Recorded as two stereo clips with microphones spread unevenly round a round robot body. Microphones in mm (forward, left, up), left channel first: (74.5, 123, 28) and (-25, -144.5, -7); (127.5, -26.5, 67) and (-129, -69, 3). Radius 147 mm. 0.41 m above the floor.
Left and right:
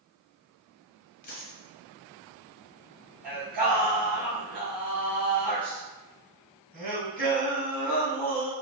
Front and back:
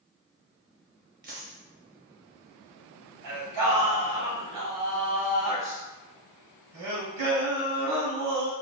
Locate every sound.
1.2 s a dropped coin: 135° left, 0.6 m
3.2 s singing: 175° right, 1.9 m